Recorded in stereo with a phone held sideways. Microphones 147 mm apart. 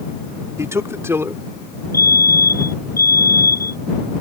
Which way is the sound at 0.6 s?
20° right (ahead or behind).